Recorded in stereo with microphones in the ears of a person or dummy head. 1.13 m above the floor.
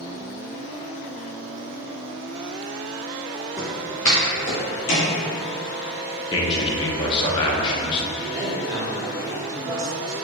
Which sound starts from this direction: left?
A man speaking, at 6.3 s.